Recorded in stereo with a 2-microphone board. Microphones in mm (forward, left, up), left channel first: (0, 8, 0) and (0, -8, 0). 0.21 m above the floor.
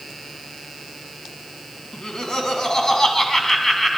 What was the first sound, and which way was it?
Laughter, 45° left (ahead or behind).